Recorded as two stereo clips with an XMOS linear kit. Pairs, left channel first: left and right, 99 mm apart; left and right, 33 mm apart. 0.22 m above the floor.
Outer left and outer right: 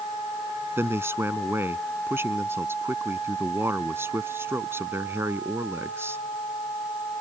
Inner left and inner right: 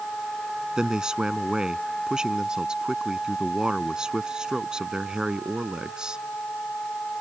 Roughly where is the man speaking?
Right.